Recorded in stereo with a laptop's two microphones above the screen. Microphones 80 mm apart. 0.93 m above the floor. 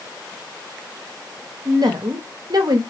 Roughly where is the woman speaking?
Right.